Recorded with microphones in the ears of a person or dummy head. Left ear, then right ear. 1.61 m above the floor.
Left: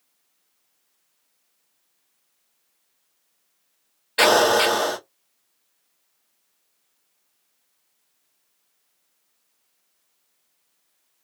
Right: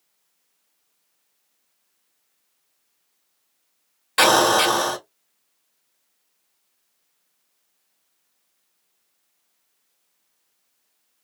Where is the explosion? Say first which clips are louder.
Even; 45° right (ahead or behind), 1.7 m.